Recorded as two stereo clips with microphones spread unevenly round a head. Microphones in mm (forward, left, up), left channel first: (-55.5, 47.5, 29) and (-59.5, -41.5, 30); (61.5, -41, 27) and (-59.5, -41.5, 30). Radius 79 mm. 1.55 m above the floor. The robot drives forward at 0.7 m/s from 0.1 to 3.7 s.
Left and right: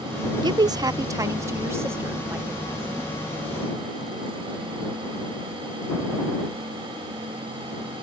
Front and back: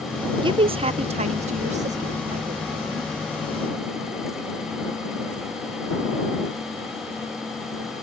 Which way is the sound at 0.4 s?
130° right.